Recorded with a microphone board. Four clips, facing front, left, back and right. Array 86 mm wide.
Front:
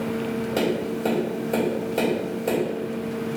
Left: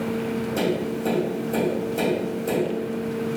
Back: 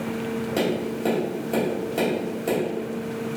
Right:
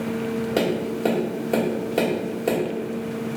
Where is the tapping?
95° right, 1.6 m.